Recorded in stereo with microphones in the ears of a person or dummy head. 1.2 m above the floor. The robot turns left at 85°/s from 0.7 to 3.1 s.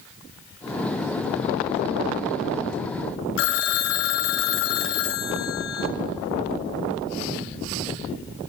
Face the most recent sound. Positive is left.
turn(degrees=65)  # may be behind; listen again after turning